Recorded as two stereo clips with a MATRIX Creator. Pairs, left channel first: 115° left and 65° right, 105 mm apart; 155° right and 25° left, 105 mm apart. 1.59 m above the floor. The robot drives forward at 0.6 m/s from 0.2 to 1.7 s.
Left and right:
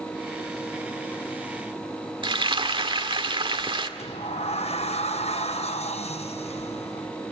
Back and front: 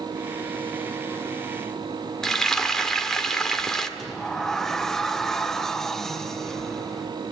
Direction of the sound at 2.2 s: 75° right.